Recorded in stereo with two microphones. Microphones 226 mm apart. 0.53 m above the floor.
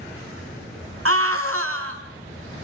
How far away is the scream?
About 5 m.